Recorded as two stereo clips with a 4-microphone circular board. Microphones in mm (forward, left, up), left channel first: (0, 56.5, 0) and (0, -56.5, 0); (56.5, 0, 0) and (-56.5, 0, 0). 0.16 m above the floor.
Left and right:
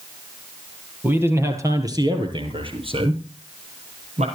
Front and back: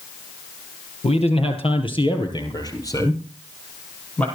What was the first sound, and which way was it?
A man speaking, 20° right.